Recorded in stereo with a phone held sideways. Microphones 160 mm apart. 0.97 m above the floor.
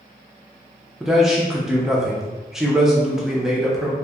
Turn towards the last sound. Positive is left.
turn(degrees=-5)  # may be behind; listen again after turning